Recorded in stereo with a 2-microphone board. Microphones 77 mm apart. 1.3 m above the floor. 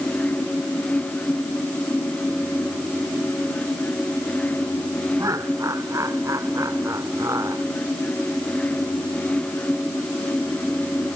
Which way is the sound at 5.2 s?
45° right (ahead or behind).